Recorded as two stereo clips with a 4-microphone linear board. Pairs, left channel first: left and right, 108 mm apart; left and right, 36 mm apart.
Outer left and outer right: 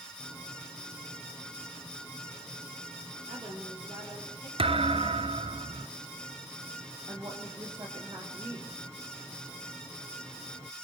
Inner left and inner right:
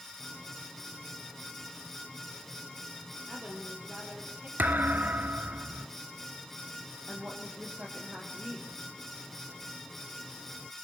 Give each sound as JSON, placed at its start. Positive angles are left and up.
{"t": 3.3, "sound": "a woman speaking", "side_deg": -60, "distance_m": 5.0}
{"t": 4.6, "sound": "a thud", "side_deg": -65, "distance_m": 0.8}
{"t": 7.1, "sound": "a woman speaking", "side_deg": -45, "distance_m": 5.5}